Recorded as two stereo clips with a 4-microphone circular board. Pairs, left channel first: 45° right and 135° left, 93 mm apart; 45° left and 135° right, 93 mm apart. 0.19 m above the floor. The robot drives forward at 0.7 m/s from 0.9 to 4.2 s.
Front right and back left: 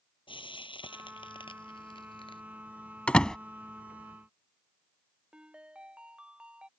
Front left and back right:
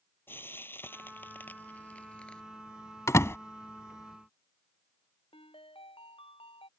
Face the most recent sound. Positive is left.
turn(degrees=55)